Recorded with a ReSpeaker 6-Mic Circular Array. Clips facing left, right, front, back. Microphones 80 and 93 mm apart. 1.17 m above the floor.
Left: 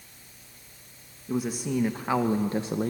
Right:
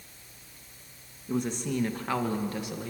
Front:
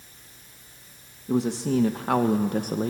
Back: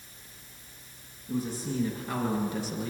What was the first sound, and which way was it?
A man speaking, 5° left.